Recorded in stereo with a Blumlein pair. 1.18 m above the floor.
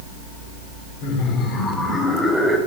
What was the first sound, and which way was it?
Laughter, 40° left.